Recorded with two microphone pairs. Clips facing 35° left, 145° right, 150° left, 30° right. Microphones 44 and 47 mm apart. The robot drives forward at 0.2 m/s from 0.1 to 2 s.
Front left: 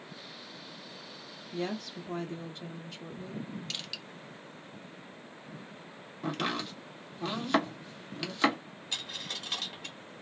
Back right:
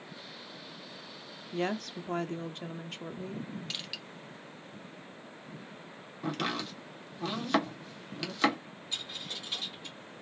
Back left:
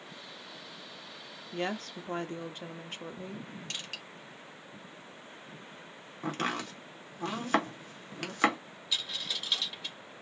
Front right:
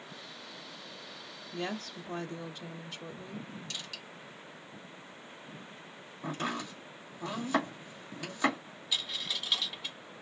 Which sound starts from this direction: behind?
A woman speaking, at 1.5 s.